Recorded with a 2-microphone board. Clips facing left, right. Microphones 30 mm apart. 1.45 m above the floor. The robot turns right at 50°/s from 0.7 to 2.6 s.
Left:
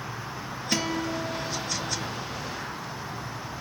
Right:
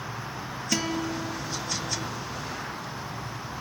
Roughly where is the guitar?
Ahead.